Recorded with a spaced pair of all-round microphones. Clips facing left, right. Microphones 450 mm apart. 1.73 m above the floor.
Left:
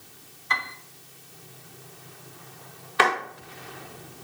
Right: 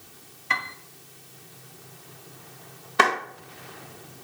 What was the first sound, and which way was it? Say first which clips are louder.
A piano: even; 50° right (ahead or behind).